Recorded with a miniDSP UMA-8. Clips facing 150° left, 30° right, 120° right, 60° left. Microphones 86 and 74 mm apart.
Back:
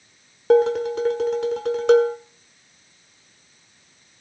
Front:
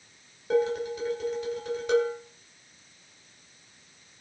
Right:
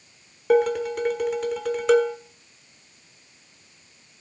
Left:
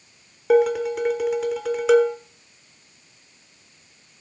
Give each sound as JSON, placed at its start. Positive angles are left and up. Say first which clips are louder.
{"t": 0.5, "sound": "dishes clattering", "louder": "back 9 dB, left 2 dB", "azimuth_deg": 150, "distance_m": 1.4}